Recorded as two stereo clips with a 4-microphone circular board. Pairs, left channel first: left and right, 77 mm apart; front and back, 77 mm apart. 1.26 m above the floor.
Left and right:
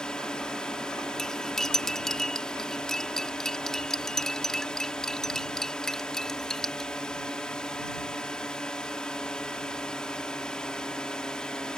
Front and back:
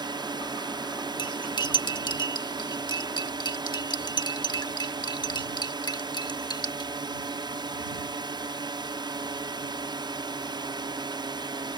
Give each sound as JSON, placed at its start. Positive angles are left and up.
{"t": 0.0, "sound": "a drone", "azimuth_deg": 170}
{"t": 1.2, "sound": "cutlery clinking", "azimuth_deg": 10}